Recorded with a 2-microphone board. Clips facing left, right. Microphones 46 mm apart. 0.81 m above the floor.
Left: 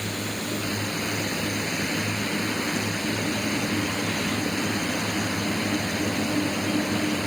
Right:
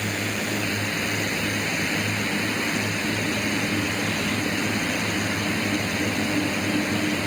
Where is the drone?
60° right (ahead or behind).